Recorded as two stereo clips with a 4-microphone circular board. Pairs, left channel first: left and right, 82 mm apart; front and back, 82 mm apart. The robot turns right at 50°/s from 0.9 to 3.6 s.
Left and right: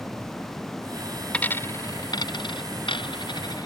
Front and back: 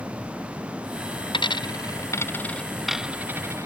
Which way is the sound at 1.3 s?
15° left.